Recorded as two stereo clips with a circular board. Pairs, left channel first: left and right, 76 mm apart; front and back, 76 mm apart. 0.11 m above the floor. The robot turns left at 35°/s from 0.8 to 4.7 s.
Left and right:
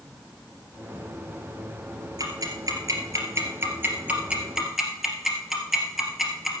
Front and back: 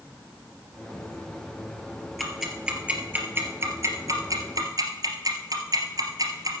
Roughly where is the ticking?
Right.